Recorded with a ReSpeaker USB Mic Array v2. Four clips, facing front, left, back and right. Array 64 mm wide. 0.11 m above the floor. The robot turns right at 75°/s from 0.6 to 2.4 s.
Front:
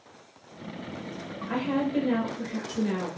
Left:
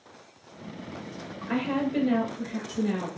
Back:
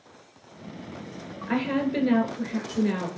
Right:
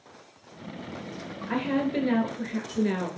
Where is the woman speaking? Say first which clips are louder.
Even, back 2 dB; 170° left, 1.5 m; by 3.1 s 120° right, 1.5 m.